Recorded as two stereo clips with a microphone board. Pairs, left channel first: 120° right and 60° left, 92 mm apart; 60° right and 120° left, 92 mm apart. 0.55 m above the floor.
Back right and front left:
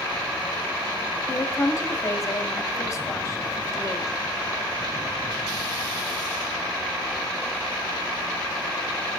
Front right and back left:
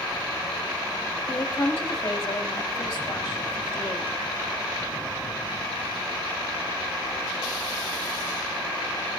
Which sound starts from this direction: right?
A woman speaking, at 1.3 s.